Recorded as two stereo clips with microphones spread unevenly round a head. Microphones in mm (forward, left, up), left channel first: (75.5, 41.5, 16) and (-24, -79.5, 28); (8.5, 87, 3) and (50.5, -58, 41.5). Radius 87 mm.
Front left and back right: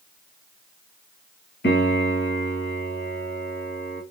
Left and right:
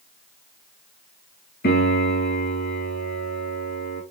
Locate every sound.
1.6 s a piano: 85° left, 3 m